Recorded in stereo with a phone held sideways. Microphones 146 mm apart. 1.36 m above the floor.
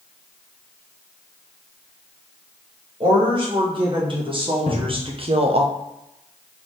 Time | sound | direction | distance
3.0 | a woman speaking | 35° right (ahead or behind) | 2 m
4.7 | a cupboard door | 35° left (ahead or behind) | 1.1 m